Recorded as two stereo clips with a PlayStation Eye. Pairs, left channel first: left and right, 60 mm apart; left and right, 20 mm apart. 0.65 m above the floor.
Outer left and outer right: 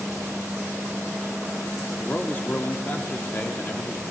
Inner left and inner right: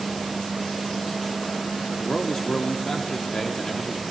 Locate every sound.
2.0 s a man speaking: 35° left (ahead or behind), 1.3 m